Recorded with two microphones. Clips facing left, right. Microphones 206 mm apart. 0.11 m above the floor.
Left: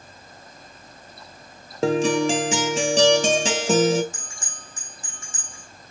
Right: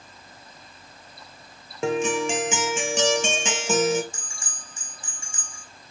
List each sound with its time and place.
1.8 s a guitar: 35° left (ahead or behind), 0.5 m
4.1 s a bell: 25° right (ahead or behind), 4 m